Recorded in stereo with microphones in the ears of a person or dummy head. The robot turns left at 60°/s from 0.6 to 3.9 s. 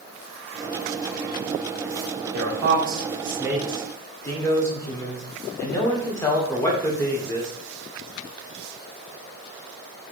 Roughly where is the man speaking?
Right.